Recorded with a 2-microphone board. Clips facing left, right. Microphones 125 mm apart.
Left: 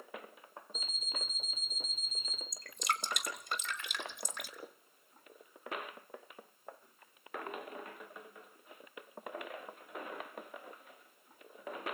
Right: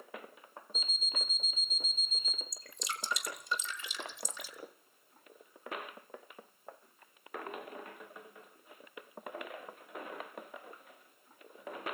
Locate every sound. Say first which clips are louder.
0.7 s an alarm clock: right 2 dB; 10° left (ahead or behind), 1.9 m
2.5 s dripping: left 7 dB; 55° left (ahead or behind), 1.8 m